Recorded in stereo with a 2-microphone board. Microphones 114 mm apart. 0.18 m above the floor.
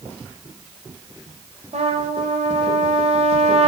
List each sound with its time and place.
1.7 s a trumpet: 70° right (ahead or behind), 2 m